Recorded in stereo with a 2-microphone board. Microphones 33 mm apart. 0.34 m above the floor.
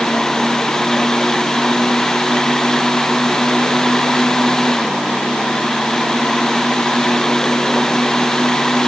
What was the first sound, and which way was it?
Only background noise.